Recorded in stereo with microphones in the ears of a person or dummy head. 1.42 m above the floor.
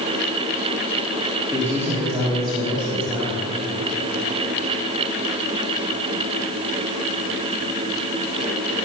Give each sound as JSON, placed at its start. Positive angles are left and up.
{"t": 1.5, "sound": "a man speaking", "side_deg": -10, "distance_m": 3.5}